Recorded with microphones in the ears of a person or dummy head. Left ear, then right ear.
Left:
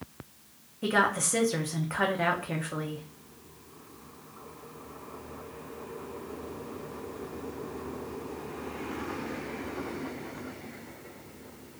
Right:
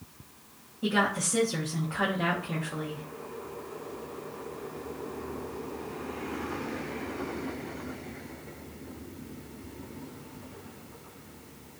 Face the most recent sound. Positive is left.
turn(degrees=35)  # may be behind; listen again after turning